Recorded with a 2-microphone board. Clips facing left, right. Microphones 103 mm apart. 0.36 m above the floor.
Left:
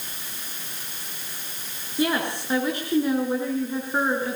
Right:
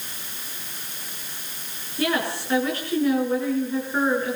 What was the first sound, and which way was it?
A woman speaking, 20° left (ahead or behind).